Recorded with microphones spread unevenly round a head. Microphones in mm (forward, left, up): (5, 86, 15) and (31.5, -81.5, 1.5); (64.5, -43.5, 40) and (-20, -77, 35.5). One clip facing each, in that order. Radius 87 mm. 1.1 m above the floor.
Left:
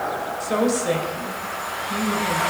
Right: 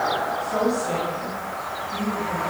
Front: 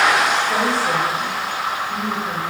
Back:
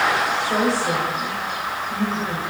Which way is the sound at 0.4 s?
115° left.